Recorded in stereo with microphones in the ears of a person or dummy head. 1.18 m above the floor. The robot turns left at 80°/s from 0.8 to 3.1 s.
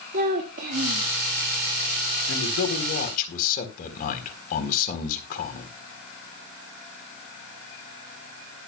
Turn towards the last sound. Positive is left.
turn(degrees=50)